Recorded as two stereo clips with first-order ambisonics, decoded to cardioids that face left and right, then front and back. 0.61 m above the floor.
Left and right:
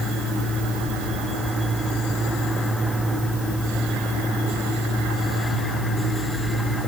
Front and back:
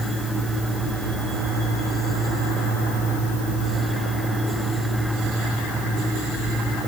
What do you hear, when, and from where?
Only background noise.